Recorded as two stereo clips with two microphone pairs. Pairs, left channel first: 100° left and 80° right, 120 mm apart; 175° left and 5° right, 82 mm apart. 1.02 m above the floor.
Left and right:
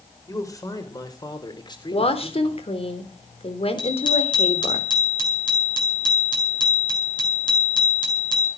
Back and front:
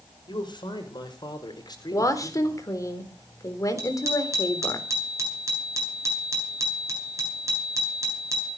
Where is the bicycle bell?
50° left, 8.5 m.